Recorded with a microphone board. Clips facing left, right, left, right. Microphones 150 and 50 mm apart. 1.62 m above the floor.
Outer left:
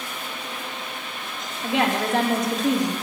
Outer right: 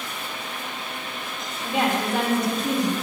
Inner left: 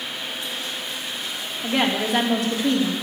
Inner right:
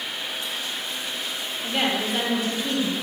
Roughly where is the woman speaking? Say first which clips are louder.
Outer left 1 dB, inner left 3 dB; left.